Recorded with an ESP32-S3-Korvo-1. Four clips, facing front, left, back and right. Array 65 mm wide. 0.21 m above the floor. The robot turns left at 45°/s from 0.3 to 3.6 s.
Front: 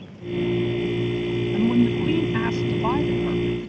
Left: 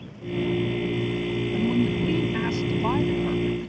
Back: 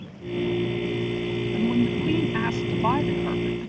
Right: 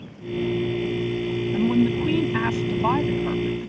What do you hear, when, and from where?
1.5 s a woman speaking: 60° right; by 3.7 s 150° right